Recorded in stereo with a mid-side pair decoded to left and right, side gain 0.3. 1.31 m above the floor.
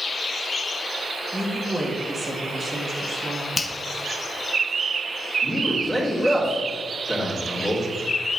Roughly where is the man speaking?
Ahead.